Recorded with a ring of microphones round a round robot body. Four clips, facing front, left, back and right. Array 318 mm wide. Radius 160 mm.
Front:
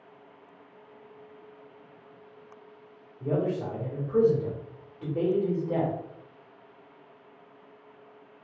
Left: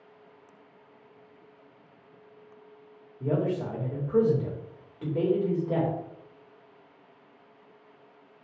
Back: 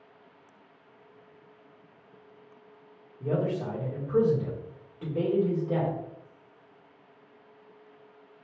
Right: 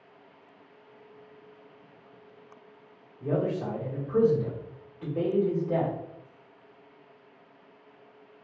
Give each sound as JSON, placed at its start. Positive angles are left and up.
{"t": 3.2, "sound": "a man speaking", "azimuth_deg": 100, "distance_m": 1.1}